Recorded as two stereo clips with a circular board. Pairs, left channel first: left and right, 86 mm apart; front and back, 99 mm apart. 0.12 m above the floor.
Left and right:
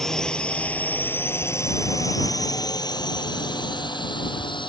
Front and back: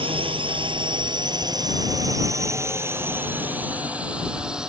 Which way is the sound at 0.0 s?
175° left.